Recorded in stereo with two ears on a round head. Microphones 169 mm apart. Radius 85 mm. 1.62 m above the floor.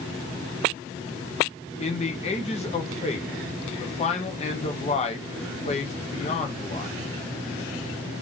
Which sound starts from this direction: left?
A man speaking, at 1.8 s.